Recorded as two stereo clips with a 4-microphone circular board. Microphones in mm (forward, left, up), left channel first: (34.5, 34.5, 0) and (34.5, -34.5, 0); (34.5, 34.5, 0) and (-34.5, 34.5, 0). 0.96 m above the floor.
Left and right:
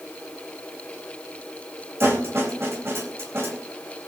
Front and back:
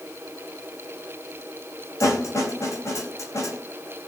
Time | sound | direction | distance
2.0 | a snare drum | 40° right | 4 m